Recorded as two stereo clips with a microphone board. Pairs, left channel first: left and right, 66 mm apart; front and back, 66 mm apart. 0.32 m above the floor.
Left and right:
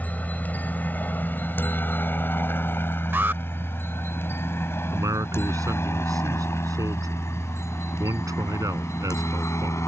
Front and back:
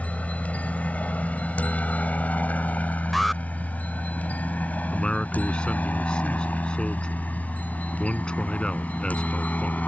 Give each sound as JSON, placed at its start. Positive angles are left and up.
{"t": 0.0, "sound": "a helicopter", "azimuth_deg": 50}
{"t": 3.1, "sound": "an alarm", "azimuth_deg": -90}
{"t": 4.9, "sound": "a man speaking", "azimuth_deg": -75}